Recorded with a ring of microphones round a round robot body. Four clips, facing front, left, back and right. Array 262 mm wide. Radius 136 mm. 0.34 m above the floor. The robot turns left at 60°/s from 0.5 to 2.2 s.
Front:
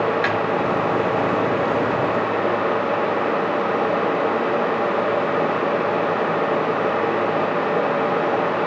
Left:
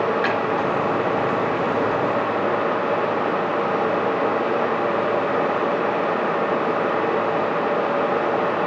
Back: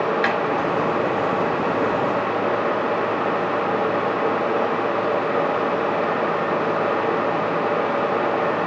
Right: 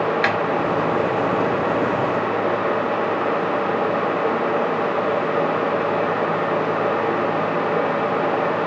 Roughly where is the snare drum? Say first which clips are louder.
Right 1 dB, even; right.